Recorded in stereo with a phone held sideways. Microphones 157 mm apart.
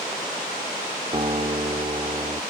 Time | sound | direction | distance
1.1 | a guitar | 35° right (ahead or behind) | ?